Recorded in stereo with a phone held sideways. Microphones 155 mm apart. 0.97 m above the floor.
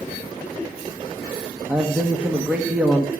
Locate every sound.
1.7 s a man speaking: 10° right (ahead or behind), 1.2 m